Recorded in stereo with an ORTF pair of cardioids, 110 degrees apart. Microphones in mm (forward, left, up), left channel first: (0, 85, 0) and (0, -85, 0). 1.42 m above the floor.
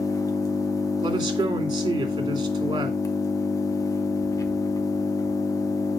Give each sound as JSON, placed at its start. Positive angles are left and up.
{"t": 0.0, "sound": "an engine running", "azimuth_deg": 20, "distance_m": 1.1}
{"t": 1.0, "sound": "a man speaking", "azimuth_deg": -25, "distance_m": 3.0}